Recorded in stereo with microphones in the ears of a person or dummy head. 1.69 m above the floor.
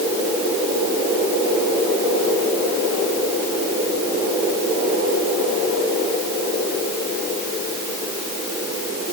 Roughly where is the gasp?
I don't hear a gasp.